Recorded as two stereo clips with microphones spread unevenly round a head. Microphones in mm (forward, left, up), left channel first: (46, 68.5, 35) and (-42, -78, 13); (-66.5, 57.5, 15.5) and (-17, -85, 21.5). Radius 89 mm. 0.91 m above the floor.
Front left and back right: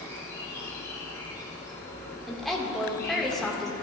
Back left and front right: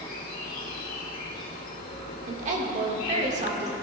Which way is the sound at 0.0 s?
135° left.